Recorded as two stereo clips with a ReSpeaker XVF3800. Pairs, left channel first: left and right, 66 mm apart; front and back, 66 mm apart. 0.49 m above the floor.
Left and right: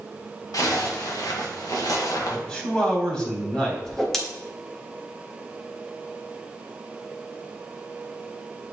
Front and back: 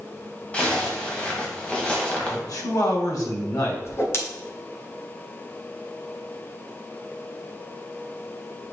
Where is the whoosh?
10° left, 1.5 m.